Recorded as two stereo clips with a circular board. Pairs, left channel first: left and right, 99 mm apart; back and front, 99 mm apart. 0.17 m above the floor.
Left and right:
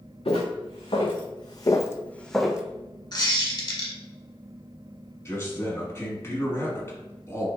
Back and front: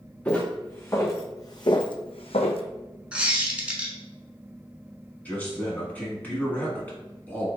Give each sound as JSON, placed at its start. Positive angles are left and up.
{"t": 0.2, "sound": "footsteps", "azimuth_deg": 105, "distance_m": 1.2}
{"t": 3.1, "sound": "a squeak", "azimuth_deg": 75, "distance_m": 1.1}
{"t": 5.2, "sound": "a man speaking", "azimuth_deg": 120, "distance_m": 1.3}